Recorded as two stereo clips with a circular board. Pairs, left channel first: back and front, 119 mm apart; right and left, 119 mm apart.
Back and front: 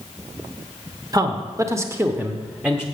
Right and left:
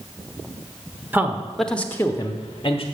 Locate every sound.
1.1 s a man speaking: 30° left, 0.9 m; by 2.8 s 85° right, 1.1 m